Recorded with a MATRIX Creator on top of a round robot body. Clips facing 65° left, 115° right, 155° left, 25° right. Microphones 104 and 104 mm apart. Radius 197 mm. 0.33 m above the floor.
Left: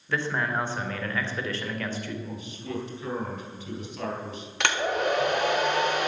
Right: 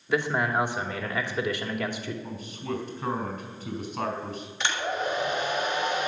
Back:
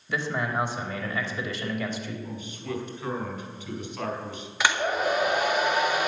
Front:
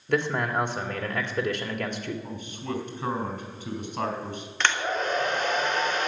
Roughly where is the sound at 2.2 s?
Ahead right.